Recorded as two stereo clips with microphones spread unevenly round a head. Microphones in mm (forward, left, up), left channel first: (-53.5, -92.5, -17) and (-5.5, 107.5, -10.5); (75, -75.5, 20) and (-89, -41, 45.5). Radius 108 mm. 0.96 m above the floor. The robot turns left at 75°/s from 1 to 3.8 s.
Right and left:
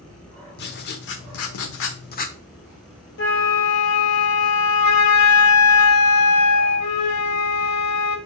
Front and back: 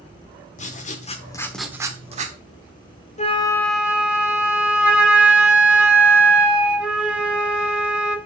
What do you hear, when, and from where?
0.6 s writing: 60° right, 1.1 m; by 2.4 s 160° right, 1.1 m
3.2 s a flute: 60° right, 1.0 m; by 8.2 s 105° right, 1.0 m